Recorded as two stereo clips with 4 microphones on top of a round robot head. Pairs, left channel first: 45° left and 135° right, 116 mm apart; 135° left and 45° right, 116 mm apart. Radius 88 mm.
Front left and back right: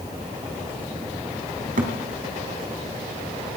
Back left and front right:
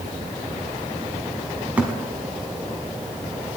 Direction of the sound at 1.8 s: 125° right.